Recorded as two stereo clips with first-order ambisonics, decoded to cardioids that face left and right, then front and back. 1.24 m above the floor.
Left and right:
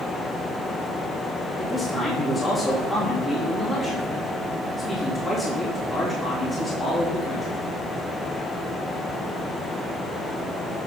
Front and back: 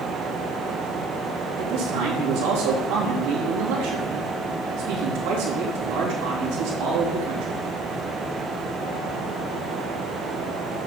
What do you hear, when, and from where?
1.6 s a man speaking: 165° left, 2.5 m